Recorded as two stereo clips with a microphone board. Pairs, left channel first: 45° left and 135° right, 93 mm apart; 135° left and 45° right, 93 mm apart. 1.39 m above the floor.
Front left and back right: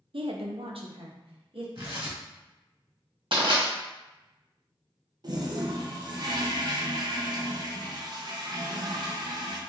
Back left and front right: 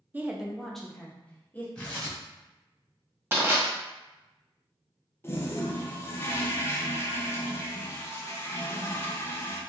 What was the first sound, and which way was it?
A woman speaking, 115° right.